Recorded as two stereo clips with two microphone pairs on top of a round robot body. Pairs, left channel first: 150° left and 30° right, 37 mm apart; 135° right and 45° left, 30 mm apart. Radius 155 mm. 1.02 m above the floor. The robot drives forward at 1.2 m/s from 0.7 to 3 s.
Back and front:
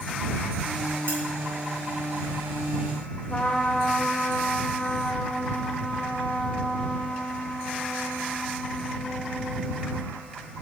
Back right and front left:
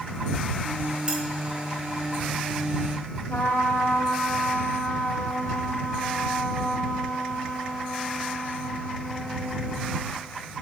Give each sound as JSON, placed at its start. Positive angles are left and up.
{"t": 1.1, "sound": "cutlery clinking", "azimuth_deg": -20, "distance_m": 4.5}
{"t": 3.3, "sound": "a trumpet", "azimuth_deg": -150, "distance_m": 1.6}